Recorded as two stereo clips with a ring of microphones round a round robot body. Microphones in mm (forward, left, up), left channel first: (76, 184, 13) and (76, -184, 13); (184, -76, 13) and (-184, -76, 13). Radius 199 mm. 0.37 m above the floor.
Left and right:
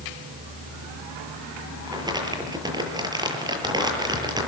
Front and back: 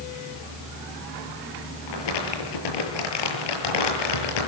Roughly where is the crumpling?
Ahead.